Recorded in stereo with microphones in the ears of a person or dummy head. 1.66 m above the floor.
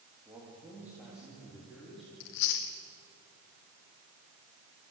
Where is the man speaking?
15° right (ahead or behind), 3 m; by 2.1 s centre (ahead or behind), 4 m.